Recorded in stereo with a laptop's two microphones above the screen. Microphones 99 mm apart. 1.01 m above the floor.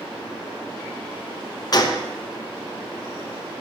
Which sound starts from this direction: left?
A gunshot, at 1.7 s.